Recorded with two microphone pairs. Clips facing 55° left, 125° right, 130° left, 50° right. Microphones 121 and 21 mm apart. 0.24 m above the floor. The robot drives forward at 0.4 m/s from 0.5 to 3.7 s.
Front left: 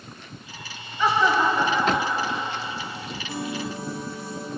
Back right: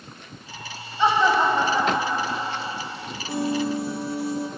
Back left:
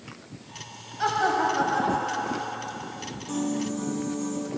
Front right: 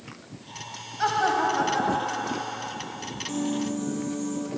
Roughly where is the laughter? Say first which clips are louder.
Back right 2 dB, even; behind right.